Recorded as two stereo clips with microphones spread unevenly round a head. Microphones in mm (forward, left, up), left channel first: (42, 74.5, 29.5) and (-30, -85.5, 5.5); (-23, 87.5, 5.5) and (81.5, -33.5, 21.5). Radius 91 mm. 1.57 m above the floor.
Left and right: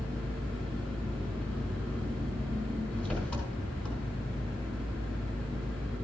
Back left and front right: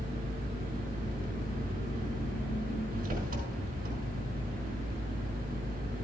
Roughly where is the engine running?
Ahead.